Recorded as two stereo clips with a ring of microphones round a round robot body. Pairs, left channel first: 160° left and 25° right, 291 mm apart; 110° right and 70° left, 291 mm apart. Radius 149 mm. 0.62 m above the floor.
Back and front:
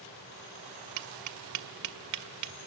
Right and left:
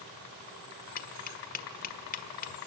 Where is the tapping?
50° right, 1.6 m.